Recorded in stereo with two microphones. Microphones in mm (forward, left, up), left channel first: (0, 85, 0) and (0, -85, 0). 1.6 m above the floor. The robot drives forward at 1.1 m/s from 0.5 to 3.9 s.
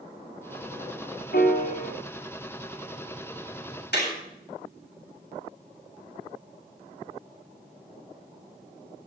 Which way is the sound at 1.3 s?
65° left (ahead or behind).